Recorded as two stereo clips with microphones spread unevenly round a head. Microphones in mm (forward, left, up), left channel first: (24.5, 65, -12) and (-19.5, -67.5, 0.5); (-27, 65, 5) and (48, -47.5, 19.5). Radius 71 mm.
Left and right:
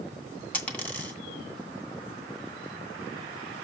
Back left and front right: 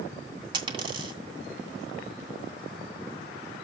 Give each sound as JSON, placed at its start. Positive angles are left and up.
{"t": 0.5, "sound": "a dropped coin", "azimuth_deg": -10, "distance_m": 2.0}